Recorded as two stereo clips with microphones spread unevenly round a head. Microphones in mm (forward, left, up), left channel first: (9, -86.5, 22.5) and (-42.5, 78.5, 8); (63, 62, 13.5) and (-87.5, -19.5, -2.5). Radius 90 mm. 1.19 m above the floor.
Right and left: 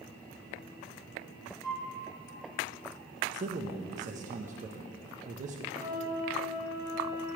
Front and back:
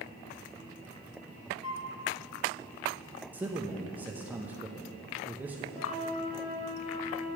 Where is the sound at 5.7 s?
45° left, 3.5 m.